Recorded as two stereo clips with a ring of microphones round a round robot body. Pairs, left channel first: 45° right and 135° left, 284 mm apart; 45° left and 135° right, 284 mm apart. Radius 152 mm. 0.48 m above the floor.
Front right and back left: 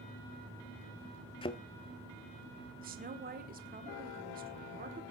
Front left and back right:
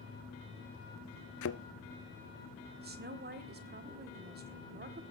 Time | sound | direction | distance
1.4 | a thud | 25° left | 0.6 m
2.8 | a woman speaking | 175° right | 1.8 m